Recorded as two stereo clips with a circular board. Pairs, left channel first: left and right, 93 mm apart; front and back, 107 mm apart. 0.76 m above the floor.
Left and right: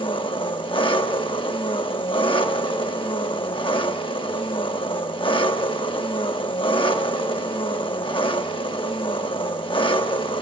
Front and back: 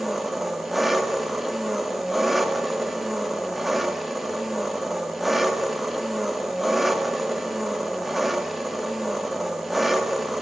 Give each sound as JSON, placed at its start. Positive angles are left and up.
{"t": 0.0, "sound": "an engine running", "azimuth_deg": 90, "distance_m": 1.0}